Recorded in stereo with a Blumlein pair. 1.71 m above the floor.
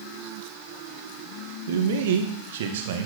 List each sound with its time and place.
1.7 s a man speaking: 55° right, 1.9 m